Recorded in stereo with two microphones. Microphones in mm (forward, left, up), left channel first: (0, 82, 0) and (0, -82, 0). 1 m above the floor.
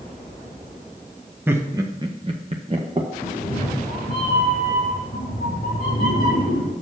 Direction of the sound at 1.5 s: 15° right (ahead or behind).